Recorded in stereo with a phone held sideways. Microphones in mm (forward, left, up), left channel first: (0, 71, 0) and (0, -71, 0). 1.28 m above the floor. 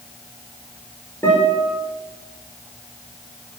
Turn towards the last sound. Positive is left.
turn(degrees=15)  # may be behind; listen again after turning